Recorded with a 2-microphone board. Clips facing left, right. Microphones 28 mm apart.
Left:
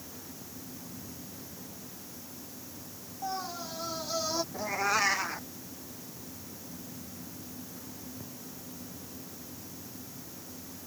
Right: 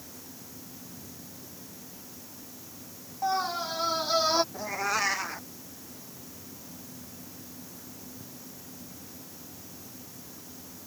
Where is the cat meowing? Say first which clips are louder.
Left 1 dB; centre (ahead or behind).